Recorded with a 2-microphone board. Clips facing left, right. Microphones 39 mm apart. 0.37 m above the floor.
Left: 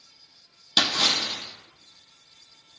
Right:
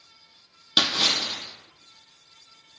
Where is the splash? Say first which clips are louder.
Even; 10° right (ahead or behind), 1.9 m.